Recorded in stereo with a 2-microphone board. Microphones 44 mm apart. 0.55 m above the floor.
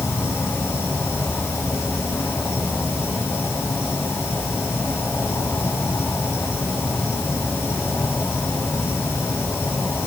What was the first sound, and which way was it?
An insect, 75° left (ahead or behind).